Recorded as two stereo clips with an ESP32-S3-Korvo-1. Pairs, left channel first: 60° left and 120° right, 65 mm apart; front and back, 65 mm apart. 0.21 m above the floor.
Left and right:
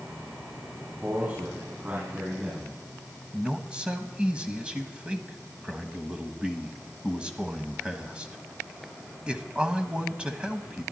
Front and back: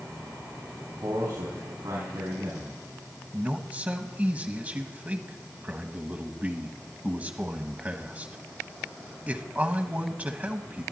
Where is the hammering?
No hammering in this recording.